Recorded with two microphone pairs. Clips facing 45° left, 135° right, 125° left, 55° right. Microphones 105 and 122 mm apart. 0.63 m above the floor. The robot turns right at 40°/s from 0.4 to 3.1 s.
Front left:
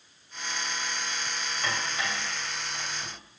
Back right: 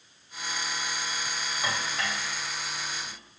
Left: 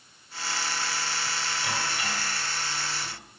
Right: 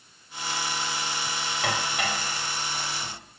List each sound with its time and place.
1.6 s dishes clattering: 55° right, 2.5 m; by 3.2 s 5° left, 2.5 m